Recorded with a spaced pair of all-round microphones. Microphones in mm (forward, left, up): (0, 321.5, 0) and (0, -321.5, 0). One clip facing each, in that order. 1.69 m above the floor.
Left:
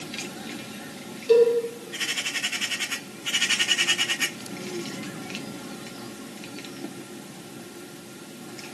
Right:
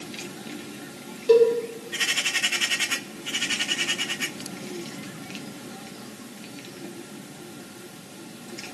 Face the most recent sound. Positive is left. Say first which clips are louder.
# right 1 dB
turn(degrees=-70)  # may be behind; listen again after turning